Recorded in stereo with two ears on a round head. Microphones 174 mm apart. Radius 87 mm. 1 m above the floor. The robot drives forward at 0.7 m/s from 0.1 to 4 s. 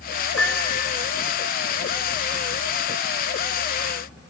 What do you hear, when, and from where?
0.4 s a piano: 10° right (ahead or behind), 3 m